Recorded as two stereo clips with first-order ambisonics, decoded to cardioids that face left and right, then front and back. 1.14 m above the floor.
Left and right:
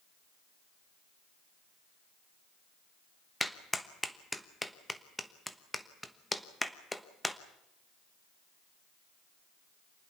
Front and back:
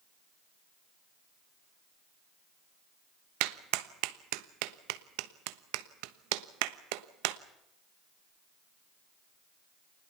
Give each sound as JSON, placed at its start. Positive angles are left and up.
{"t": 3.4, "sound": "a clap", "azimuth_deg": 175, "distance_m": 1.1}